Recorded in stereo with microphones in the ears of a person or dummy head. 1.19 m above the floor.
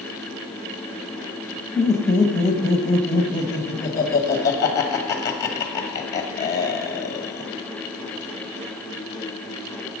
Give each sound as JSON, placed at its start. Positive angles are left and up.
{"t": 1.8, "sound": "laughter", "side_deg": 20, "distance_m": 1.2}